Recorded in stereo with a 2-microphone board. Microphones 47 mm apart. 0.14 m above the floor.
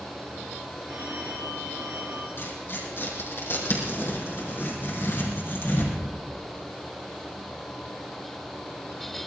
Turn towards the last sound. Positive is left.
turn(degrees=55)  # may be behind; listen again after turning